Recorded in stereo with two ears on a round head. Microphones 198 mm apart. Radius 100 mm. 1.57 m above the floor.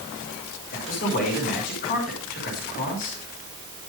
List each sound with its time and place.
0.7 s a man speaking: 40° left (ahead or behind), 6 m